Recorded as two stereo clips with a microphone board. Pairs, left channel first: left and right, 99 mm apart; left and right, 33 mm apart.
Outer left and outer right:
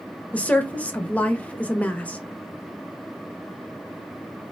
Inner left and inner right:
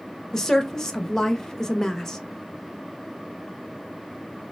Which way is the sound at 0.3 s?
15° left (ahead or behind).